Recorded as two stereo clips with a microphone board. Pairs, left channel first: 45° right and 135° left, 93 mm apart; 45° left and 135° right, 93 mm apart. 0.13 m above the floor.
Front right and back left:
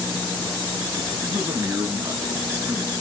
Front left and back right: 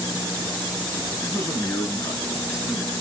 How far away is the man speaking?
About 1.8 m.